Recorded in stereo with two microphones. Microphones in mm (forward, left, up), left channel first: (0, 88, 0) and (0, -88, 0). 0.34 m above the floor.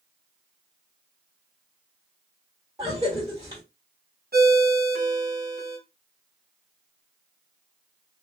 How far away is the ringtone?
About 1.7 m.